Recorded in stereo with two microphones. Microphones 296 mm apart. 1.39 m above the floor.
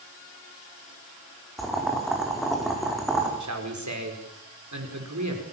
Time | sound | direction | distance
1.6 | boiling | centre (ahead or behind) | 4 m
3.4 | a man speaking | 65° right (ahead or behind) | 4.5 m